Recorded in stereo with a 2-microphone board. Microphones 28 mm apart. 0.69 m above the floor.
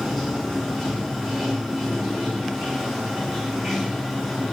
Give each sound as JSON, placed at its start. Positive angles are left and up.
{"t": 0.0, "sound": "running water", "side_deg": 0, "distance_m": 1.2}